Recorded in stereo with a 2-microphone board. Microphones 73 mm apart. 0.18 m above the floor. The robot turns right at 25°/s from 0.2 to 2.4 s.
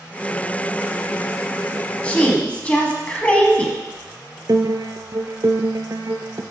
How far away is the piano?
About 0.5 m.